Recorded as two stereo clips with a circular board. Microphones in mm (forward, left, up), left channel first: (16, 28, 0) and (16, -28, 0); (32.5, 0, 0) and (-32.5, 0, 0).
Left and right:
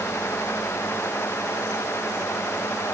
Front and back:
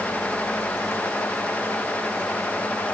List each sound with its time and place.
Only background noise.